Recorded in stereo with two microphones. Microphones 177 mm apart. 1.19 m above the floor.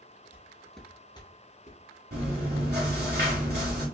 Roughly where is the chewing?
Right.